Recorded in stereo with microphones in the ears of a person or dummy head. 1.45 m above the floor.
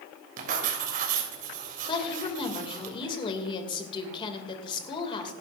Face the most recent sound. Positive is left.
turn(degrees=25)  # may be behind; listen again after turning